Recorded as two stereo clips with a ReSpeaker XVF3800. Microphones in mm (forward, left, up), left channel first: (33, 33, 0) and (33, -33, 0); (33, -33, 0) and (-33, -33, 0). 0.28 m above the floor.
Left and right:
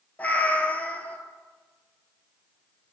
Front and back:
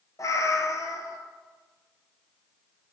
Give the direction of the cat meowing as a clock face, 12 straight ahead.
11 o'clock.